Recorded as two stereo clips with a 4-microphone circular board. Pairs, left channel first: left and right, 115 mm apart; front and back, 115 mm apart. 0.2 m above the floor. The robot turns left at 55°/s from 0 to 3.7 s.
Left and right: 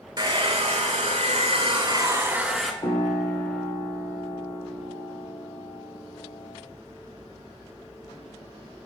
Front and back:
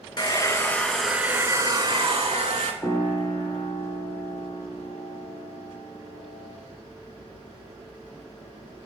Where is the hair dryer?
40° right, 0.8 m; by 2.7 s 175° left, 0.8 m.